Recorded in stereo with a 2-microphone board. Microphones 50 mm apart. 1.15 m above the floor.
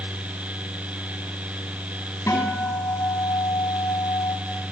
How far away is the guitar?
About 8.5 m.